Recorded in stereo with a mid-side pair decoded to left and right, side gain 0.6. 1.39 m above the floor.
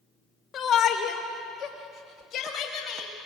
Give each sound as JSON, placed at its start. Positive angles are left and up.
{"t": 0.5, "sound": "a shout", "azimuth_deg": 45, "distance_m": 3.5}